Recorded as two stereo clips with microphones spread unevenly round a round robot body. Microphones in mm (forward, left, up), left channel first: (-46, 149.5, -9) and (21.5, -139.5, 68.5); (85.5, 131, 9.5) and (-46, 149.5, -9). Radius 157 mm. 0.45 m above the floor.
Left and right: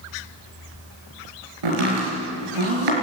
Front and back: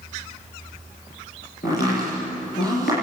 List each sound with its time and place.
1.6 s chopping: 70° right, 7 m